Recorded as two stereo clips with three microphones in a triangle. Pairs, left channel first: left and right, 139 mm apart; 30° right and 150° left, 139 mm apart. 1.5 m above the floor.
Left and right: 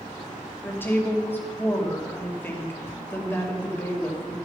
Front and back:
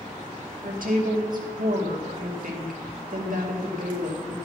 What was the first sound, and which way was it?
A woman speaking, 165° left.